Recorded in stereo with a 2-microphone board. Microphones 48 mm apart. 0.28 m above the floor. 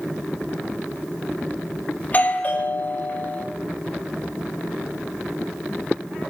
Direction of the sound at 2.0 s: 35° left (ahead or behind).